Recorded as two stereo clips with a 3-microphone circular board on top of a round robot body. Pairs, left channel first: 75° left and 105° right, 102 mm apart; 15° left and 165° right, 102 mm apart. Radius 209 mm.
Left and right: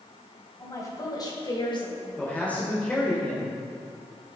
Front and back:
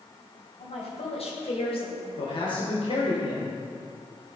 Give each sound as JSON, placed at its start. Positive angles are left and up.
{"t": 0.6, "sound": "a woman speaking", "azimuth_deg": 15, "distance_m": 3.5}
{"t": 2.2, "sound": "a man speaking", "azimuth_deg": 0, "distance_m": 2.5}